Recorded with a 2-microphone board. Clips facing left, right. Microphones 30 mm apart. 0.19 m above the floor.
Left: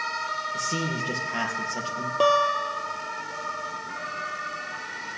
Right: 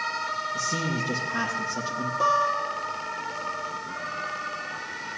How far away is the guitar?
About 1.3 m.